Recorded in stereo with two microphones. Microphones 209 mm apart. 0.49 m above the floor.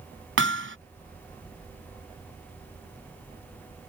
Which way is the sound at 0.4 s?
75° right (ahead or behind).